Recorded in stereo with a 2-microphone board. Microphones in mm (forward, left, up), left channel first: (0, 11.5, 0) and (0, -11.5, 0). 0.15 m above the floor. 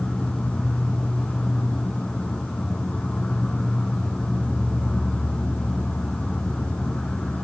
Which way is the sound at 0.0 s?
80° left.